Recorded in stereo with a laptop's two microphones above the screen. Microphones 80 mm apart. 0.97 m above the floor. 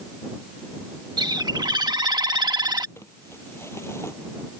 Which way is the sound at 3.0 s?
30° left (ahead or behind).